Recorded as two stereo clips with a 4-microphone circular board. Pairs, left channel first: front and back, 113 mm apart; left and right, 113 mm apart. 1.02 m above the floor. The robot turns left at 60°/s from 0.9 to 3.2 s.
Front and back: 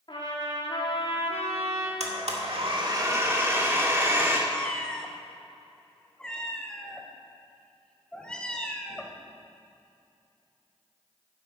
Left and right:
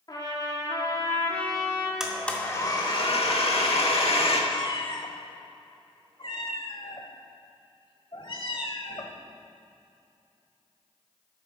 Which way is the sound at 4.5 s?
80° left.